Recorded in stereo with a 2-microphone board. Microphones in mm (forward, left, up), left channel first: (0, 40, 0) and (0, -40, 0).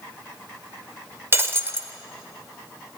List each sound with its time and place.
1.3 s breaking glass: 30° right (ahead or behind), 1.3 m